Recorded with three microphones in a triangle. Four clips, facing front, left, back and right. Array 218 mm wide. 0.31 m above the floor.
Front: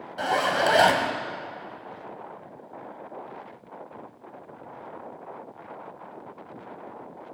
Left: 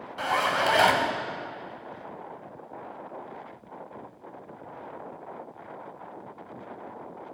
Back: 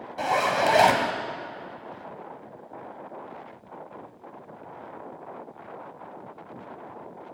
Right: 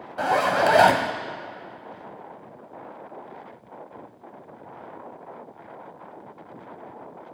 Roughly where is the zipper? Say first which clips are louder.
Right 5 dB, even; right.